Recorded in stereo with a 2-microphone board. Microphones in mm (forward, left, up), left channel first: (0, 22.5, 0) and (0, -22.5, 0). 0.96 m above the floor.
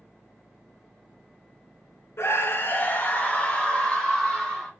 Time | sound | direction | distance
2.2 | a scream | 65° left (ahead or behind) | 0.6 m